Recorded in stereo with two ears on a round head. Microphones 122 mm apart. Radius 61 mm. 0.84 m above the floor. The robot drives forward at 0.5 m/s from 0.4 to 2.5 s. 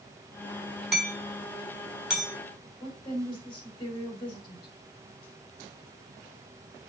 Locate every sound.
0.9 s hammering: centre (ahead or behind), 6.5 m
2.8 s a woman speaking: 40° left (ahead or behind), 5 m